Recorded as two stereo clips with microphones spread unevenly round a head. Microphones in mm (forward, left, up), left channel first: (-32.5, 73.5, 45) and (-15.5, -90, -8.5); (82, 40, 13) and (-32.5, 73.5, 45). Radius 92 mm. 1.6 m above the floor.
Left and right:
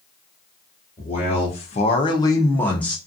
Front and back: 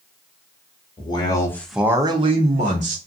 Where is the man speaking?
40° left, 0.9 m; by 3.0 s 175° left, 1.1 m.